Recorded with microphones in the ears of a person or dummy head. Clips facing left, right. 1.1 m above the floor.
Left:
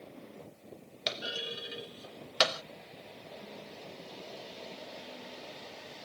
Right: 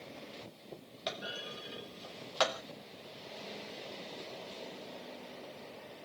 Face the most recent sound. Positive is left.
turn(degrees=30)  # may be behind; listen again after turning